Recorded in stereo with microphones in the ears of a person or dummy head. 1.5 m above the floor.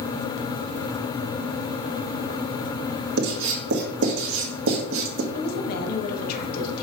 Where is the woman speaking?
55° left (ahead or behind), 1.8 m.